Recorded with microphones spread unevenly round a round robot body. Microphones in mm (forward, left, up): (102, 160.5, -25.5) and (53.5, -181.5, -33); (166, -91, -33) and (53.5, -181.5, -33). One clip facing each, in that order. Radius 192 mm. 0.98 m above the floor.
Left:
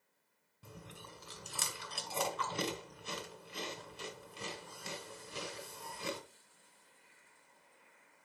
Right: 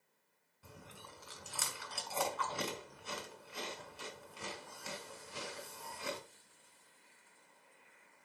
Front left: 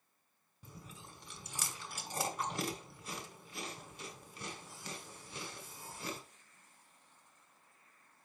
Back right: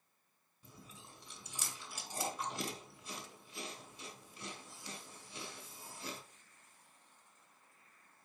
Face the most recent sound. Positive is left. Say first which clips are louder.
# left 3 dB, front left 3 dB
turn(degrees=20)